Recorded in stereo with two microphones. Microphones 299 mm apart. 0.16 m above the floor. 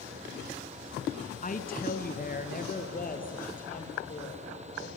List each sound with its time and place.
1.4 s a woman speaking: 30° left (ahead or behind), 1.3 m